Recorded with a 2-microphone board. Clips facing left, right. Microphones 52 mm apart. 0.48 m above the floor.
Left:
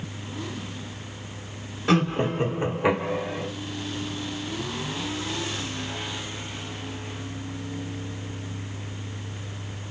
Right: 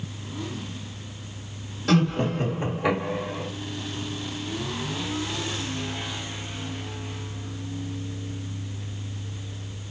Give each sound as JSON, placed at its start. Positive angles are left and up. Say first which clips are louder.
{"t": 1.9, "sound": "laughter", "louder": "even", "side_deg": 20, "distance_m": 0.9}